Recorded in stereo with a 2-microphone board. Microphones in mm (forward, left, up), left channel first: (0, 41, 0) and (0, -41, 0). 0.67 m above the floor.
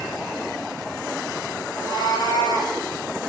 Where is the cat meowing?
70° left (ahead or behind), 3 m; by 2.8 s 80° left, 3.5 m.